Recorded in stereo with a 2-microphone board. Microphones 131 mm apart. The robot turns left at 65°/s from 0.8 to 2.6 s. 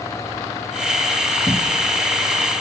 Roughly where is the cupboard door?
Centre.